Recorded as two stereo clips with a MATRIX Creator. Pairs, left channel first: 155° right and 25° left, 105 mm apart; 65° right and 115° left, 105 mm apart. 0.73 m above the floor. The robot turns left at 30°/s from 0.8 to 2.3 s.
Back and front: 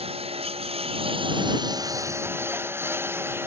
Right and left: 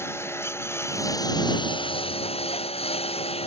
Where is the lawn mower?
Straight ahead; by 3.5 s 45° right.